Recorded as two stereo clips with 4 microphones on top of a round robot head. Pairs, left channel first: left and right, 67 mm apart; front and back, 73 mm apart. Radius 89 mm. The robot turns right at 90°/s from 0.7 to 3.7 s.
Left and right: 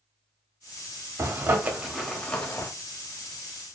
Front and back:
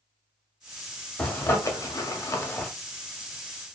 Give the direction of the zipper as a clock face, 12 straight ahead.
2 o'clock.